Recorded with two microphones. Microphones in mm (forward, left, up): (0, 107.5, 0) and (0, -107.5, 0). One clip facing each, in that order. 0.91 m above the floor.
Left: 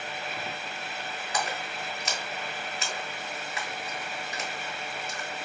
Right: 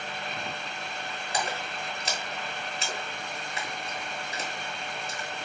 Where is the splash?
35° right (ahead or behind), 3.5 m.